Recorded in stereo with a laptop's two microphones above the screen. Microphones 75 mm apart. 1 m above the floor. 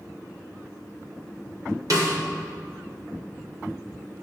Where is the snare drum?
55° right (ahead or behind), 2.5 m.